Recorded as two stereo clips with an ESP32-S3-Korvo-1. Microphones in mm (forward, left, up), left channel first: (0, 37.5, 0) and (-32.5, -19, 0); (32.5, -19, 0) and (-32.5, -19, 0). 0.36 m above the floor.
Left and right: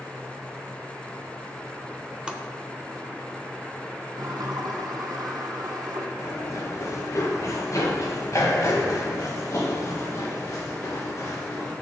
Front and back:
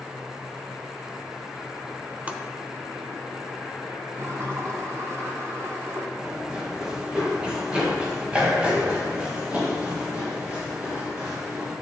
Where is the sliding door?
135° right, 3 m.